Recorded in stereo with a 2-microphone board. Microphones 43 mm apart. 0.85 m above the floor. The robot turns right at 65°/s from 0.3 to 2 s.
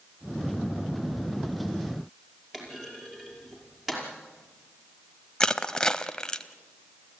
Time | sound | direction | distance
2.5 | a clunk | 10° right (ahead or behind) | 5.5 m
5.4 | crushing | 20° left (ahead or behind) | 0.7 m